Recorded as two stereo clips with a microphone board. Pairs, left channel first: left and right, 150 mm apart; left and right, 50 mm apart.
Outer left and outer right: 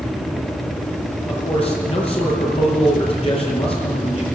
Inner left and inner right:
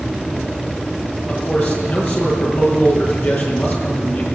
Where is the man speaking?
40° left (ahead or behind), 8.5 m.